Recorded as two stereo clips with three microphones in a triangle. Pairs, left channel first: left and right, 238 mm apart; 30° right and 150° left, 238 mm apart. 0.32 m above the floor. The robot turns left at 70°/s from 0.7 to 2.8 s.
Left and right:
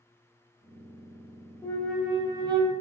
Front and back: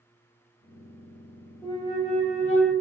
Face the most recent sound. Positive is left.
turn(degrees=-60)